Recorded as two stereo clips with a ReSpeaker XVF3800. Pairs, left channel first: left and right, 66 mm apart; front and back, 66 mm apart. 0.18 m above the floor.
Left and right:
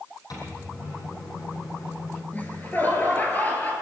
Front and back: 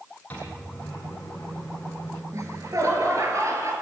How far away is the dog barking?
I don't hear a dog barking.